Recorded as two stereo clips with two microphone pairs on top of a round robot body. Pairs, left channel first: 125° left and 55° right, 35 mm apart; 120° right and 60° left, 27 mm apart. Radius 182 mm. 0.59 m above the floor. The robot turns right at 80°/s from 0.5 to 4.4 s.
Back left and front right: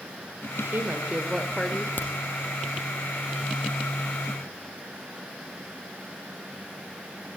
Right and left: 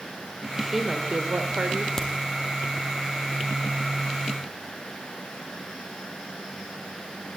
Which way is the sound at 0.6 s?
35° right.